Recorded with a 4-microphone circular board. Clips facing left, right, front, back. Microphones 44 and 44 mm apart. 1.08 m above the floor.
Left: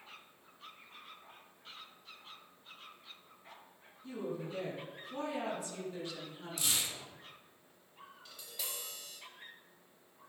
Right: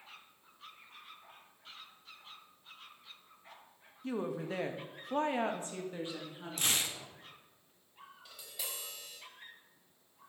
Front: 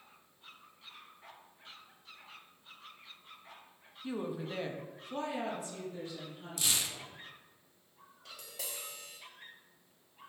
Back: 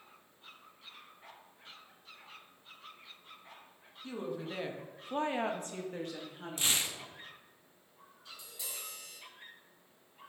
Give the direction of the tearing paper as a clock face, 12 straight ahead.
4 o'clock.